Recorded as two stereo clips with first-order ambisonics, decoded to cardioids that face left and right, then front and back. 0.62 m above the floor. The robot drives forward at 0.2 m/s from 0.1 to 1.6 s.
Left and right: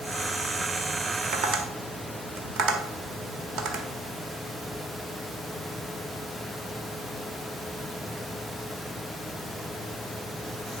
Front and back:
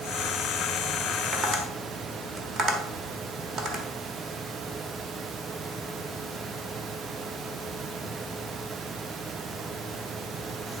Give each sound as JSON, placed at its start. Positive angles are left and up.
{"t": 1.3, "sound": "tapping", "azimuth_deg": -120, "distance_m": 1.5}